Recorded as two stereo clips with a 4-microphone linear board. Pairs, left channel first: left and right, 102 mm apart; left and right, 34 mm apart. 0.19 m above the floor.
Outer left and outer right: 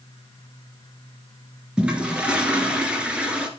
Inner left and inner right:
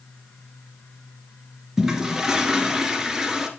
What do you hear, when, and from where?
1.8 s a toilet flushing: 10° right (ahead or behind), 1.7 m